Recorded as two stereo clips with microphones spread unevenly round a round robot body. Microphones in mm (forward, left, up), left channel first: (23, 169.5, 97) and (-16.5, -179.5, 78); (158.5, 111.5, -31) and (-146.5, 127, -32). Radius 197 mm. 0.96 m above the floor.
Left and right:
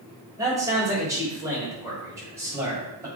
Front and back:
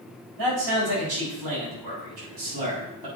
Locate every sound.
0.4 s a man speaking: 175° right, 4 m; by 3.1 s straight behind, 6 m